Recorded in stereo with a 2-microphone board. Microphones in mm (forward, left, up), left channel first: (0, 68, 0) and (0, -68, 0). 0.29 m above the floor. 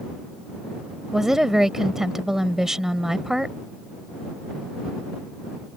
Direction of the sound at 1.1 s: 5° right (ahead or behind).